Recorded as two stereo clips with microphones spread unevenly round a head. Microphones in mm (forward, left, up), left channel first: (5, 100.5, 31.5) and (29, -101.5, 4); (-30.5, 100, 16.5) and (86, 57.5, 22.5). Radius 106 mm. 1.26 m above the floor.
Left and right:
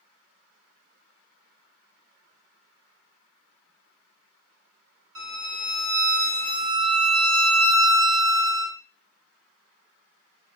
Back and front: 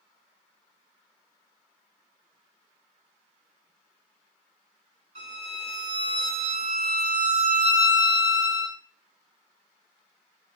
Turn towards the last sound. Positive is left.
turn(degrees=-80)